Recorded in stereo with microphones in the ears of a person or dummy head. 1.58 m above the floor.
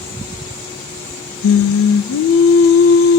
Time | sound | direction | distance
1.4 | singing | 65° left (ahead or behind) | 0.5 m